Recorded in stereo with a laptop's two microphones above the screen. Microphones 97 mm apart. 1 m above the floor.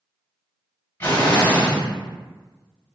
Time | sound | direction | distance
1.0 | an explosion | 25° left (ahead or behind) | 1.3 m